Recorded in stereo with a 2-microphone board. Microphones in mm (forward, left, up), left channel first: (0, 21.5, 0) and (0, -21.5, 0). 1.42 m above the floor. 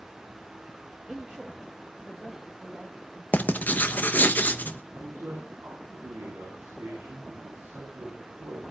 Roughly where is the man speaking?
Right.